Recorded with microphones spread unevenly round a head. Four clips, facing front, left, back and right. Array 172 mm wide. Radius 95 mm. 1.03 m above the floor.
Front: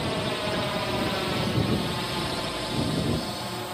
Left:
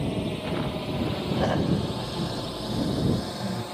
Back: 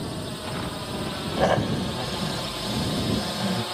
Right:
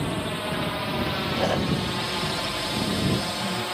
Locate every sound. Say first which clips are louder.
0.0 s a drone: right 1 dB, front 5 dB; 15° left; by 3.7 s 110° right
1.4 s snoring: even, back 9 dB; 165° right